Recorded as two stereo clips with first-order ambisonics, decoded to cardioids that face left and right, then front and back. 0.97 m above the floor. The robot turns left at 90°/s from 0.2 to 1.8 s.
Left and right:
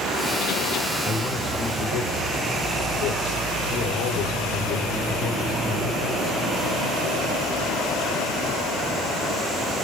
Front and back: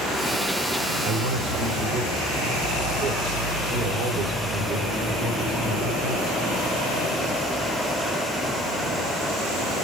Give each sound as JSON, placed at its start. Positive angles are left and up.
{"t": 1.0, "sound": "a man speaking", "azimuth_deg": -160, "distance_m": 3.5}